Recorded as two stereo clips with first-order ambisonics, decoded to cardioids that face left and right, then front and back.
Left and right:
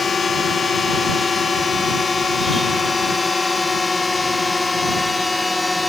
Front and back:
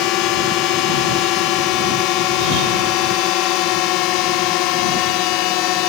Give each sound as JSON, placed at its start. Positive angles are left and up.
{"t": 0.0, "sound": "a drone", "azimuth_deg": 20}